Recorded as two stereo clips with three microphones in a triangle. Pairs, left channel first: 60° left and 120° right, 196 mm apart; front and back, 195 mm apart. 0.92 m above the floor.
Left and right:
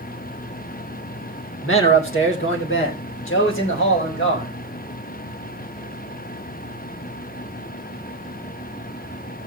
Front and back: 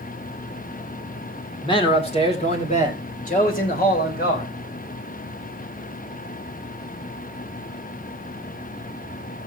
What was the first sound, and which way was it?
A man speaking, 65° left.